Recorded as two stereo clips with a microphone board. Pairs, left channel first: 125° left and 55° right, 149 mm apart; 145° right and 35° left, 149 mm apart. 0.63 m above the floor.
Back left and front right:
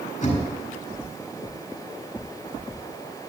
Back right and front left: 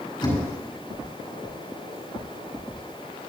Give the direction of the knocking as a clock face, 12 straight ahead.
7 o'clock.